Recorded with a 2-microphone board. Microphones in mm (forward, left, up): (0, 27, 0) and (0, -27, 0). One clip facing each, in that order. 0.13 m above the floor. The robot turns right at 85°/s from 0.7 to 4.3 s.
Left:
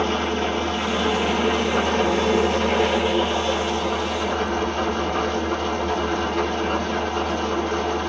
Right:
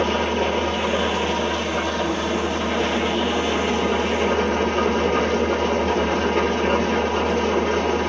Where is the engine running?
30° right, 1.3 m; by 8.1 s 85° right, 1.3 m.